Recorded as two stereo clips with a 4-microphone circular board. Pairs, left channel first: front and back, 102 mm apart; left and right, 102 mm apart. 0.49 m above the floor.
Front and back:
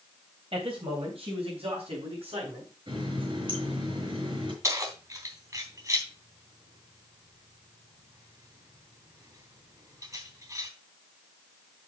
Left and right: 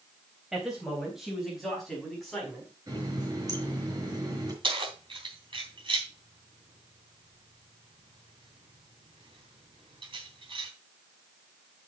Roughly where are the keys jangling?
Behind right.